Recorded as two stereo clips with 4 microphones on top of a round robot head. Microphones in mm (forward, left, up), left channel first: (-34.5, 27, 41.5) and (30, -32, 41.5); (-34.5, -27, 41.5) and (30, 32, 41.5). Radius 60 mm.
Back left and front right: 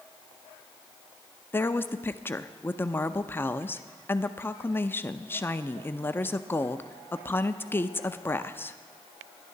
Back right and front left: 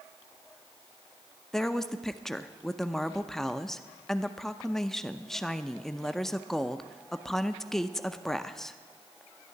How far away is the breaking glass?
I don't hear breaking glass.